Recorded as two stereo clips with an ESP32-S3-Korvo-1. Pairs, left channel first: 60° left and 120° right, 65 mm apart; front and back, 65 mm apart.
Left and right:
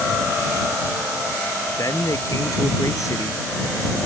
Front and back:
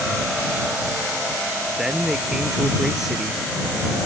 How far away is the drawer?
No drawer in this recording.